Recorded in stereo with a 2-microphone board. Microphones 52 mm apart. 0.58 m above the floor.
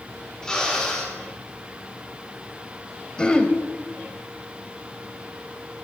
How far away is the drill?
About 5.5 m.